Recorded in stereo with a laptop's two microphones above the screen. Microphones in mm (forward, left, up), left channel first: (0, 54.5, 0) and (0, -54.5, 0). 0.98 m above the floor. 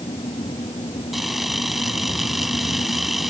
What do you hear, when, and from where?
0.0 s a fan: 60° left (ahead or behind)
1.1 s a camera shutter: centre (ahead or behind)